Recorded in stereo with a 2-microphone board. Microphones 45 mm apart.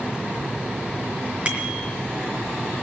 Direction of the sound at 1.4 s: 25° right (ahead or behind).